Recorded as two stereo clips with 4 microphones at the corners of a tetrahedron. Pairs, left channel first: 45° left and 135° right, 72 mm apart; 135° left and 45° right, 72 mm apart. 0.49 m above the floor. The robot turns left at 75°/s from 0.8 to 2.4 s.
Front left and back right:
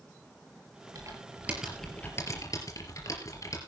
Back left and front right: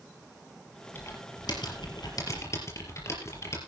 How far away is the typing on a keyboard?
About 4 m.